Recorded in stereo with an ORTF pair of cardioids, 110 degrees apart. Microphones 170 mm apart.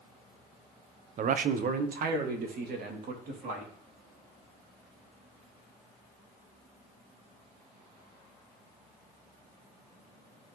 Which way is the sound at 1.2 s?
50° right.